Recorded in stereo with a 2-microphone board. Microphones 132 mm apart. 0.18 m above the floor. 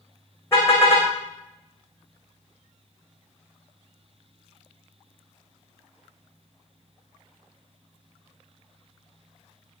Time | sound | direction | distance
0.5 | a car horn | 20° left (ahead or behind) | 7 m